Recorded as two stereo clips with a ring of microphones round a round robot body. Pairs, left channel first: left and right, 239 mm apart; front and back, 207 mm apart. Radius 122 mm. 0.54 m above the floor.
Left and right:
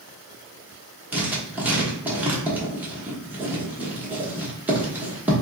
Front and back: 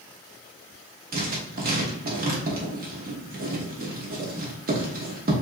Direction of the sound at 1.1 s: 170° right.